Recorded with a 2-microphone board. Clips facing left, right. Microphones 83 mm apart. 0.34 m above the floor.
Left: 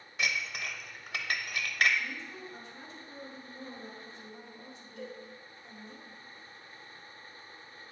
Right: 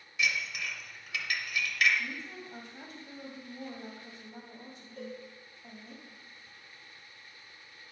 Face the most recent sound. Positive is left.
turn(degrees=-45)  # may be behind; listen again after turning